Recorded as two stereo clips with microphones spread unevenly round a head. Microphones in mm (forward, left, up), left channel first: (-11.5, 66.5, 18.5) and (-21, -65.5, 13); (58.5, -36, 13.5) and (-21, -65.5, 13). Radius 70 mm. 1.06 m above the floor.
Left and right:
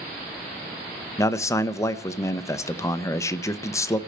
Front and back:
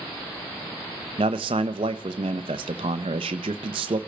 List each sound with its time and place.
1.2 s a man speaking: 155° left, 0.6 m